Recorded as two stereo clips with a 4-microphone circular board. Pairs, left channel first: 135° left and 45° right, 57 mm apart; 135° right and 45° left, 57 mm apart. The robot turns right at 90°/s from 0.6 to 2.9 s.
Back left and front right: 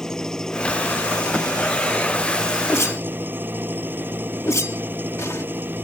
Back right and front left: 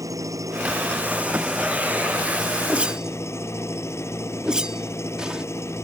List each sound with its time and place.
0.0 s an engine running: 55° left; by 5.8 s 100° right
2.7 s a whoosh: 100° left; by 5.5 s 120° left